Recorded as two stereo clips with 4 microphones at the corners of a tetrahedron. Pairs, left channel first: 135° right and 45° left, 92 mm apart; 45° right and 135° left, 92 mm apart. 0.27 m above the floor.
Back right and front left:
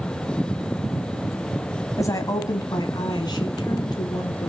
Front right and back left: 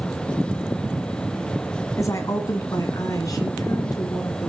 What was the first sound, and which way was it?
A woman speaking, 90° right.